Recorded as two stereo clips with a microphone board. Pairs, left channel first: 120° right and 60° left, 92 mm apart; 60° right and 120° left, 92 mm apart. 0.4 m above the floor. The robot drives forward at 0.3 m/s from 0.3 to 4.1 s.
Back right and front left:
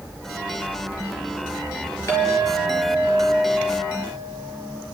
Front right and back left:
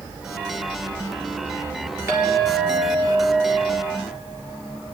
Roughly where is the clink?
Behind.